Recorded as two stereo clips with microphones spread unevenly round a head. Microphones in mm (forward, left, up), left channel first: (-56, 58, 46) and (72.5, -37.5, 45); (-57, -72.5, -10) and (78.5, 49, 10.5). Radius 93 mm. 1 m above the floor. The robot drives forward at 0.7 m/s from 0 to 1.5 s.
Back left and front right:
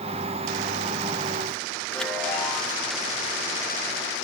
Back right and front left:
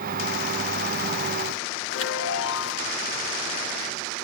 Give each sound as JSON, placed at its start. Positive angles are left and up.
{"t": 1.9, "sound": "a chime", "azimuth_deg": -130, "distance_m": 1.4}